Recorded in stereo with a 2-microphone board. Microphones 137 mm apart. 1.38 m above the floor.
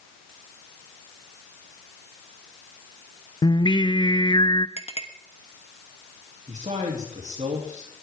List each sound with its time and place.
3.4 s singing: 35° left (ahead or behind), 0.5 m
4.8 s a clink: 50° left (ahead or behind), 1.2 m
6.5 s a man speaking: 60° right (ahead or behind), 3 m